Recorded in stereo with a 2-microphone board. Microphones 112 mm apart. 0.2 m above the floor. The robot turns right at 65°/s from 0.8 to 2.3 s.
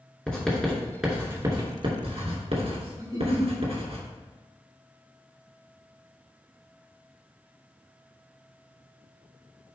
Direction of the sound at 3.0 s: 35° right (ahead or behind).